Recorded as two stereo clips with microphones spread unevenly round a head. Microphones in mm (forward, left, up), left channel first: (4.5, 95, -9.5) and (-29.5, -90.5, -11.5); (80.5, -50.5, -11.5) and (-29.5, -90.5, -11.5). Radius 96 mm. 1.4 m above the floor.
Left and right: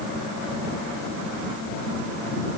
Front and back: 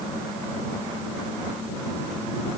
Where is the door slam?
I don't hear a door slam.